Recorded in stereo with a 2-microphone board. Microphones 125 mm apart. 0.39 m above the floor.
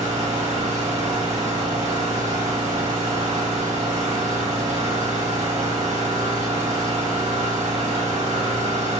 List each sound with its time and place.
0.0 s an engine running: 65° right (ahead or behind), 1.0 m